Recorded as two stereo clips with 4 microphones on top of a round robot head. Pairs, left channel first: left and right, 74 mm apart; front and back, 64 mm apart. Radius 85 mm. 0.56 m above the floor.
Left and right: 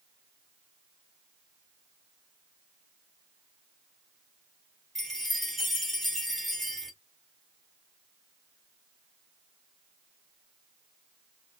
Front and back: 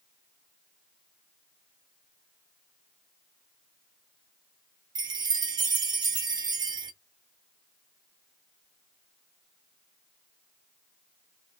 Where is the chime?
Straight behind, 0.6 m.